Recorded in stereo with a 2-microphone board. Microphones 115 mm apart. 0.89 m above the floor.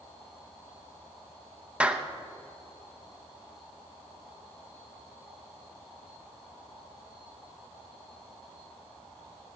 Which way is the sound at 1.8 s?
10° right (ahead or behind).